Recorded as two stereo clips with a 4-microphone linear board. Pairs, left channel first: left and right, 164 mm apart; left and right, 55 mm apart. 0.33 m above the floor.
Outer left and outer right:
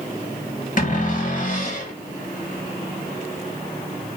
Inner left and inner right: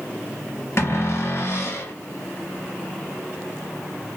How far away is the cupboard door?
About 0.9 m.